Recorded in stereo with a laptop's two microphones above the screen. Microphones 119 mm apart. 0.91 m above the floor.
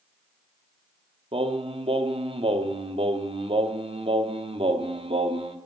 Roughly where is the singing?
Right.